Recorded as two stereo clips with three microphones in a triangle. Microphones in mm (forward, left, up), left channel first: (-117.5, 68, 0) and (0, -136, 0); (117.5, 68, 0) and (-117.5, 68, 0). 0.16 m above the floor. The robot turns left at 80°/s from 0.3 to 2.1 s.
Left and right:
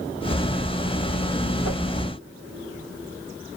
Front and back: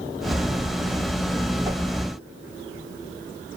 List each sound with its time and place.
1.6 s a whoosh: 105° left, 5.5 m; by 1.8 s 90° left, 5.5 m